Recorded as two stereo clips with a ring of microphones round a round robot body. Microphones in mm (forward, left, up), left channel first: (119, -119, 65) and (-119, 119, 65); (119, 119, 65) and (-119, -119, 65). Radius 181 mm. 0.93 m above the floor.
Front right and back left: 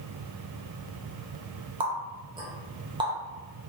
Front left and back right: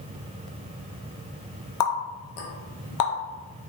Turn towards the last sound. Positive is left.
turn(degrees=60)